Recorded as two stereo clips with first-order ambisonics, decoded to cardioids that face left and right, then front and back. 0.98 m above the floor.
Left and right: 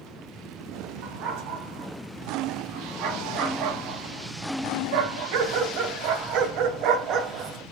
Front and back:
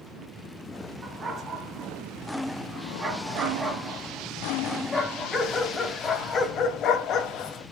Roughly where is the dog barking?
Behind right.